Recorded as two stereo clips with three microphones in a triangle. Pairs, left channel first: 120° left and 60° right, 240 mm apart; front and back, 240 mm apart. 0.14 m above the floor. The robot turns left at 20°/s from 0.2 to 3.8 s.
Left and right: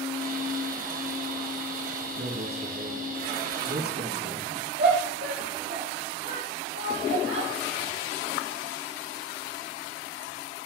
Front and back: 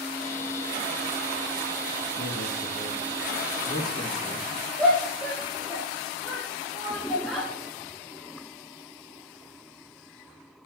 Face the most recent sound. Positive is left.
turn(degrees=-90)